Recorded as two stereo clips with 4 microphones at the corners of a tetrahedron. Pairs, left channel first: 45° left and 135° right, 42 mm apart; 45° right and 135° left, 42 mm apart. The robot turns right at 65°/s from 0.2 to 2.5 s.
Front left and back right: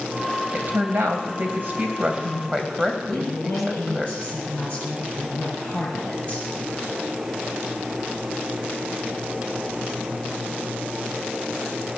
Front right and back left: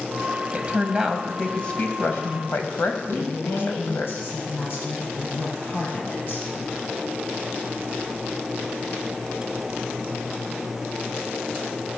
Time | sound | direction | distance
0.5 | a woman speaking | 175° right | 2 m
3.1 | a woman speaking | 15° right | 6.5 m